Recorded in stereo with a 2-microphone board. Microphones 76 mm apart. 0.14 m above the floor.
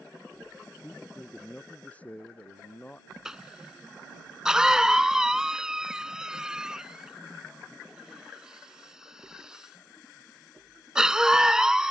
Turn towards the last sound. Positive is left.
turn(degrees=-10)  # may be behind; listen again after turning